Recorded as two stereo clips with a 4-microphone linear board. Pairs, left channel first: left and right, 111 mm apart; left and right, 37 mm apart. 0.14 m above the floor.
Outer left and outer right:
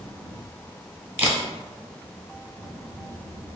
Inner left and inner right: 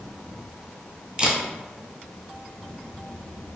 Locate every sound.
1.2 s a camera shutter: 15° right (ahead or behind), 1.1 m